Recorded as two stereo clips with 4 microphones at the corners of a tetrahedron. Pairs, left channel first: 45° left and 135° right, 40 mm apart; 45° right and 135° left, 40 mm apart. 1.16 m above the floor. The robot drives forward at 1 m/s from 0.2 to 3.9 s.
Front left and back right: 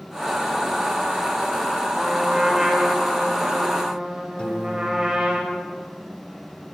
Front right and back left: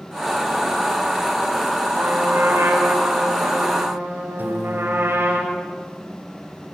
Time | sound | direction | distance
1.9 | a trumpet | 140° left | 4 m
4.4 | a piano | 110° left | 3 m